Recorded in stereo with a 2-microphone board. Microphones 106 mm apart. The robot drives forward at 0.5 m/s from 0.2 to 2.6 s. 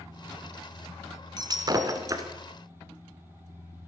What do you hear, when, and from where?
1.4 s breaking glass: 40° right (ahead or behind), 1.1 m; by 2.2 s 30° right (ahead or behind), 1.4 m